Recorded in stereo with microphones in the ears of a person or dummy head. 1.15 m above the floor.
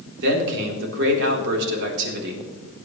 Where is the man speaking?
65° right (ahead or behind), 3.5 m.